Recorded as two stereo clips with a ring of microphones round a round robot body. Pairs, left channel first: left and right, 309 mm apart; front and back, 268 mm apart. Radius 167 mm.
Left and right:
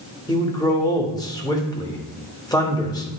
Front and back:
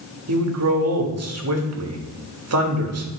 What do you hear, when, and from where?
0.3 s a man speaking: 165° left, 1.6 m